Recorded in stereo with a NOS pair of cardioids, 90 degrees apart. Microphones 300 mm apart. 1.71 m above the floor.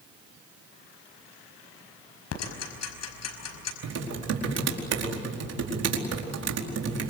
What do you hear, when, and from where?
2.3 s ticking: 60° left, 5 m
3.8 s typing on a keyboard: 55° right, 4.5 m